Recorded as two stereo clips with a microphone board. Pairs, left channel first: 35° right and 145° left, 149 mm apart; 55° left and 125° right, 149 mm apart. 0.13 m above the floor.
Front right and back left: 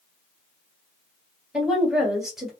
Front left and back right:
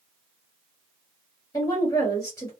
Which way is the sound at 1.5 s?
60° left.